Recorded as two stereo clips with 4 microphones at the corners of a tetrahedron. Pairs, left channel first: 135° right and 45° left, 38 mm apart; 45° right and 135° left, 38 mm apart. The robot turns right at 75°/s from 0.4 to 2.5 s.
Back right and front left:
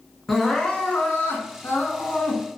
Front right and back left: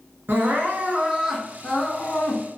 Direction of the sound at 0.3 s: 140° left.